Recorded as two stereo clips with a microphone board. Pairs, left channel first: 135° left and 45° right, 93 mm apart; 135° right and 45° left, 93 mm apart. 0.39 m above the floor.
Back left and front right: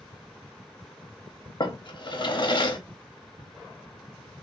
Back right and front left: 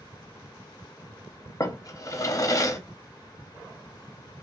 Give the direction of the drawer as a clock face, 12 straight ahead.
6 o'clock.